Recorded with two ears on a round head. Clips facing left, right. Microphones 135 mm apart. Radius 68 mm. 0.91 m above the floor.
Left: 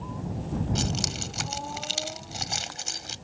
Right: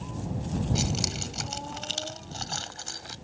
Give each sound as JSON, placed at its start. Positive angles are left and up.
{"t": 0.8, "sound": "keys jangling", "side_deg": -5}